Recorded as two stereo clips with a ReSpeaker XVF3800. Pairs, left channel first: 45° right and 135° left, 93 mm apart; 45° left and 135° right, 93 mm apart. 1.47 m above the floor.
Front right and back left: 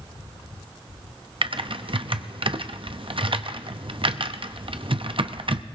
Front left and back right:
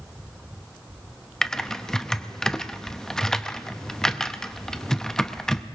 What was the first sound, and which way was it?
Typing on a keyboard, 125° left.